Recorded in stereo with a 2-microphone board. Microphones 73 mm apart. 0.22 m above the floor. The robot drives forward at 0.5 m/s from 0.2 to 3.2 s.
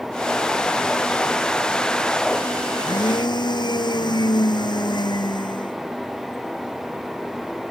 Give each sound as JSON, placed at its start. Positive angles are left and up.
{"t": 2.7, "sound": "a blender", "side_deg": 80}